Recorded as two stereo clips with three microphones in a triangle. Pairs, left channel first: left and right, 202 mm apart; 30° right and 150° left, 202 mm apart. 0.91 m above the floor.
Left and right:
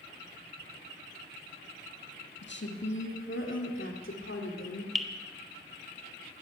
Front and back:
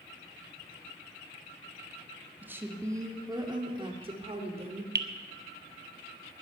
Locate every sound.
2.4 s a woman speaking: 70° left, 1.8 m; by 4.8 s 95° left, 3.5 m
5.0 s dripping: straight behind, 1.1 m